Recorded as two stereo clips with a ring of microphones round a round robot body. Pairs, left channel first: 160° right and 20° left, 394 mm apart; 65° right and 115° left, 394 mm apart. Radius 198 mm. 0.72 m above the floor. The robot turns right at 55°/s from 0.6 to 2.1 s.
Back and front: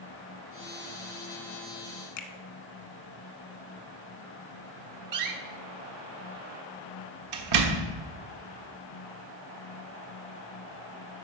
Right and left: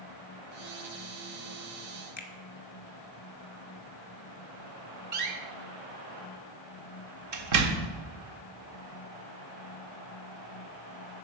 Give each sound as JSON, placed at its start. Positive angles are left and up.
{"t": 2.2, "sound": "a finger snap", "azimuth_deg": -125, "distance_m": 1.2}
{"t": 5.1, "sound": "a door slam", "azimuth_deg": 65, "distance_m": 1.3}